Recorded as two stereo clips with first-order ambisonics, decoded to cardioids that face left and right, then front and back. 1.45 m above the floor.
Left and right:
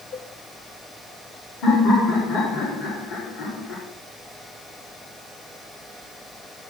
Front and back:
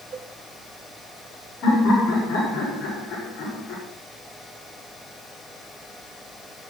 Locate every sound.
0.1 s a cowbell: 115° left, 3.5 m
1.6 s laughter: 45° left, 5 m